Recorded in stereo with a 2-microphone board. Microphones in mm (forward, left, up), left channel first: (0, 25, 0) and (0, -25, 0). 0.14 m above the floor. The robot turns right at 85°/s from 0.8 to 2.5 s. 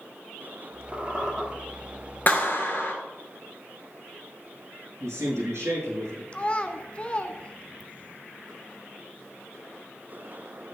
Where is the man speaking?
75° right (ahead or behind), 5.5 m.